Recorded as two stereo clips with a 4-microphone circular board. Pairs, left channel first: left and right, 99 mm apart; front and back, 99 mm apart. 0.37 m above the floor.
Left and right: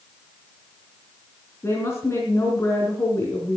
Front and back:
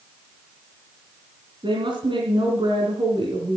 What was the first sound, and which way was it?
A woman speaking, 150° left.